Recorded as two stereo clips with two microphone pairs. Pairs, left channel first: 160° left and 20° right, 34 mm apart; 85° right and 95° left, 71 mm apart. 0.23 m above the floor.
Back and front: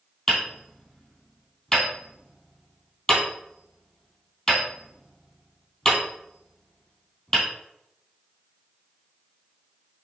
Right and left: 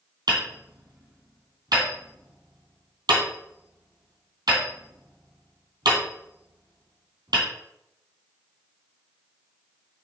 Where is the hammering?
85° left, 2.5 m.